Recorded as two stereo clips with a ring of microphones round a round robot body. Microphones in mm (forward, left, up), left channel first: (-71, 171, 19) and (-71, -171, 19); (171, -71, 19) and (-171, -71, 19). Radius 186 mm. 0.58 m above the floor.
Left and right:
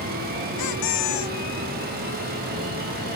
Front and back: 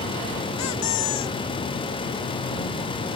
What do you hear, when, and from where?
0.6 s a squeak: 50° left